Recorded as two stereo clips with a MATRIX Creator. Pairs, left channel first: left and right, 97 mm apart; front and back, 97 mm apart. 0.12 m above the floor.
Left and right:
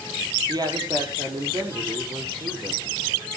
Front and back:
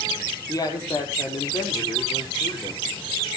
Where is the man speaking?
50° right, 4 m.